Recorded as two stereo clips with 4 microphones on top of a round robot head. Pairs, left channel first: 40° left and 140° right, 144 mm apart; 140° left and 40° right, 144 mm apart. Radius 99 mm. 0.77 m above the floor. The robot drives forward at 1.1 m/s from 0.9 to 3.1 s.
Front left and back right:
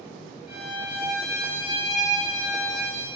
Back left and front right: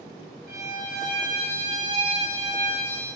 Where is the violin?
45° right, 2.5 m; by 3.1 s 110° right, 2 m.